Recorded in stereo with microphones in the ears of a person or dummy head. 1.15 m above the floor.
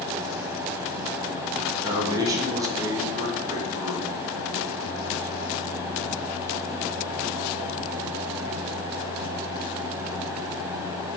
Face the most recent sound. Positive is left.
turn(degrees=-20)  # may be behind; listen again after turning